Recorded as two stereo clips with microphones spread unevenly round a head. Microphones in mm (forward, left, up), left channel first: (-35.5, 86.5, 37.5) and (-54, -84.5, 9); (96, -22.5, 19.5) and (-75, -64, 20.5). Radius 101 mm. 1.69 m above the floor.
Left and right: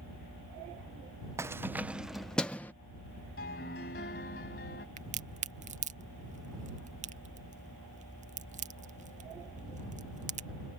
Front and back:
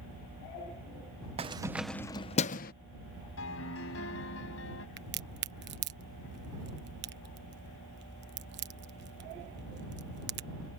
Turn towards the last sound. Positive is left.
turn(degrees=-145)